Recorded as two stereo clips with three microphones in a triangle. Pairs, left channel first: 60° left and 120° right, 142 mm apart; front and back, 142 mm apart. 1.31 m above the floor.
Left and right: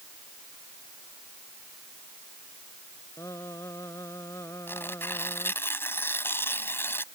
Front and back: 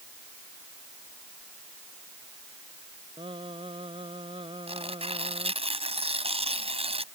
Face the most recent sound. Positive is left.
turn(degrees=135)